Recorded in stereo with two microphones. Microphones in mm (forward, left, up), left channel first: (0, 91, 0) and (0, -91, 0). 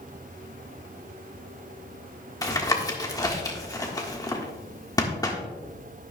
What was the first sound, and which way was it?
Tapping, 20° left (ahead or behind).